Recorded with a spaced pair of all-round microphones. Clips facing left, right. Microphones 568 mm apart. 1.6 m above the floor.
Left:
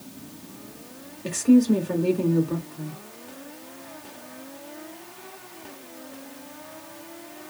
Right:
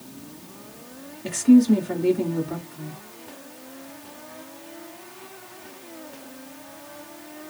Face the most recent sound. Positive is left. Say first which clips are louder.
# right 2 dB
turn(degrees=-10)  # may be behind; listen again after turning